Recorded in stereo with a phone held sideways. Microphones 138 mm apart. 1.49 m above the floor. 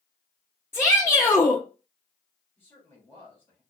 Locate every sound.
0.7 s a shout: 15° left (ahead or behind), 0.6 m
2.6 s a man speaking: 15° left (ahead or behind), 2.5 m